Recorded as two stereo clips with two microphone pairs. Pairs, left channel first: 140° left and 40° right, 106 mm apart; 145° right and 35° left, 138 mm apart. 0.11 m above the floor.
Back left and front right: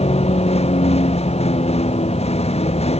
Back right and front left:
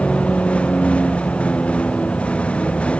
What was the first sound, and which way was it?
A vehicle, 135° left.